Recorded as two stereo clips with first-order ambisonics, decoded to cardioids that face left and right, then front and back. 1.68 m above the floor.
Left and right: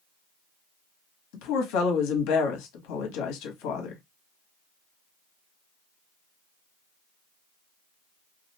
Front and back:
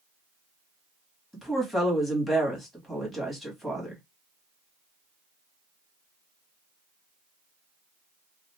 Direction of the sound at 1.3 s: 90° left.